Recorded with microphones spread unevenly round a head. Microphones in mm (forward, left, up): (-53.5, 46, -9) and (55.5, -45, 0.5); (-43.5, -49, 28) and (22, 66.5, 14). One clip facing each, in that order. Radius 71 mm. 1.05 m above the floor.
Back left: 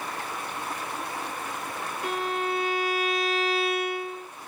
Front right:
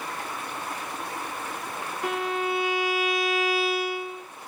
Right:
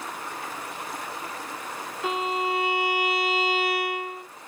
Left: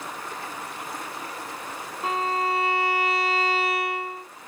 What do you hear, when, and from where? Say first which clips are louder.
2.0 s a violin: front right 2 dB, left 1 dB; 10° right, 1.2 m